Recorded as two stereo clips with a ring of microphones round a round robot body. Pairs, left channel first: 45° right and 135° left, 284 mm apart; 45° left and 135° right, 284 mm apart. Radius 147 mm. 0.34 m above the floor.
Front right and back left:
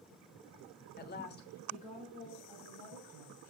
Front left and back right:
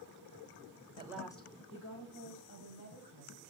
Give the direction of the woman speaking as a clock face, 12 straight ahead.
3 o'clock.